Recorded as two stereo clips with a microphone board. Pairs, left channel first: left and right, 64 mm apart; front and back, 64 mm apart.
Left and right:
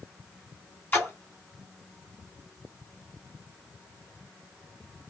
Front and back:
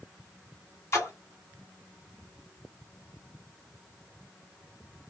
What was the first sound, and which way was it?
A splash, 35° left.